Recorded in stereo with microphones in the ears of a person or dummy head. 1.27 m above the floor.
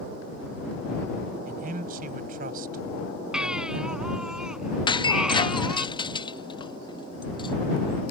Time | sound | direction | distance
1.4 | a man speaking | 45° right (ahead or behind) | ?
3.3 | a baby crying | 10° right (ahead or behind) | ?
4.9 | breaking glass | 20° left (ahead or behind) | ?